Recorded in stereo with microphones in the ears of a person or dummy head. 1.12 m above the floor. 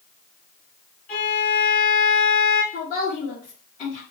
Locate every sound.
1.1 s a violin: 40° left (ahead or behind), 3 m
2.7 s a woman speaking: 40° left (ahead or behind), 2.5 m